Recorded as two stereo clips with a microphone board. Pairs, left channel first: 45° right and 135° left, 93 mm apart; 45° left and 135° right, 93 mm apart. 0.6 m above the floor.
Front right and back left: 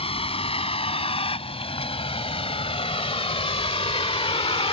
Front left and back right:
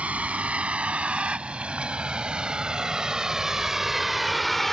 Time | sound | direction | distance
0.0 | a vehicle | 60° right | ?